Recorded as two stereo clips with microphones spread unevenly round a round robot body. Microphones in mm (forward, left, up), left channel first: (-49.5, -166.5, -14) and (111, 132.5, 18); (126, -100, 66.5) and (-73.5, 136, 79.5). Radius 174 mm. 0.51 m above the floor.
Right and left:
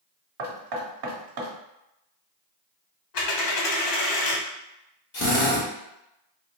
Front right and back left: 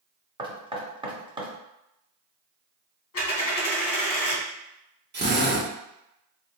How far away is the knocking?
About 0.8 m.